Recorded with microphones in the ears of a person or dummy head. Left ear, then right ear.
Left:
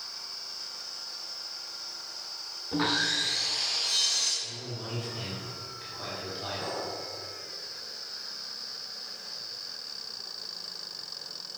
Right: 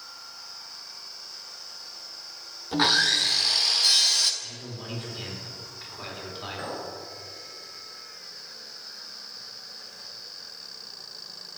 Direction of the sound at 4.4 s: 20° right (ahead or behind).